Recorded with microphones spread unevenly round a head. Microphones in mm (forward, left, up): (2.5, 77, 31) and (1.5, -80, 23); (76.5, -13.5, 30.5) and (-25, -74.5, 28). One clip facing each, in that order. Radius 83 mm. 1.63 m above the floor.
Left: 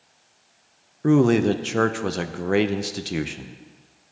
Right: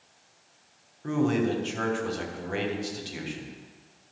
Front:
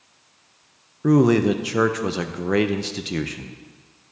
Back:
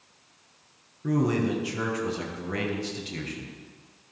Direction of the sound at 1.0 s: 60° left.